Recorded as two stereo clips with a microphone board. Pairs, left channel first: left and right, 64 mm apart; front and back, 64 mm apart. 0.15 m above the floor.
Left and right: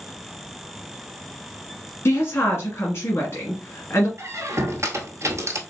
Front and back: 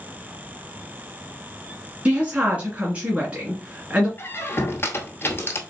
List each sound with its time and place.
2.0 s a woman speaking: 115° left, 2 m
4.2 s a squeak: 55° right, 0.9 m